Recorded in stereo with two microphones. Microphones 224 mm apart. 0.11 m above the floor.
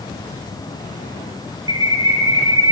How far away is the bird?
About 7.5 m.